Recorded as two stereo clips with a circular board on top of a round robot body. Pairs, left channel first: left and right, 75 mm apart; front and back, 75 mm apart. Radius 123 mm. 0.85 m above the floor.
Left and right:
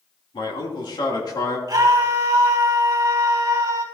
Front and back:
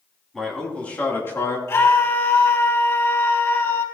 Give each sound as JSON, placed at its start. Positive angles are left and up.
{"t": 0.3, "sound": "a man speaking", "azimuth_deg": 85, "distance_m": 3.0}
{"t": 1.7, "sound": "a scream", "azimuth_deg": -55, "distance_m": 3.5}